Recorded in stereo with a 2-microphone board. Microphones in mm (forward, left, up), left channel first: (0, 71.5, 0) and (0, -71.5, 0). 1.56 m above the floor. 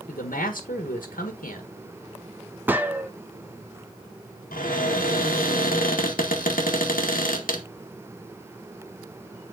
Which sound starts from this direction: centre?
A gunshot, at 2.7 s.